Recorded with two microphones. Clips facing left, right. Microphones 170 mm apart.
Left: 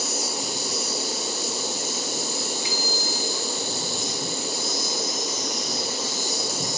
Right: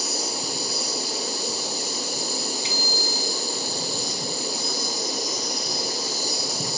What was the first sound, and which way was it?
An insect, 35° right (ahead or behind).